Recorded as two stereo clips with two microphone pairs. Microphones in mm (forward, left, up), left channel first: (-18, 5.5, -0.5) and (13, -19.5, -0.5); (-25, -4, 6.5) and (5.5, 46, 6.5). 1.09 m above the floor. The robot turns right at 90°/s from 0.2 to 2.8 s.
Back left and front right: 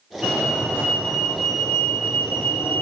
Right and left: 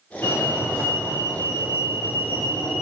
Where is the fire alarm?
130° right, 5 m; by 2.8 s 100° left, 5 m.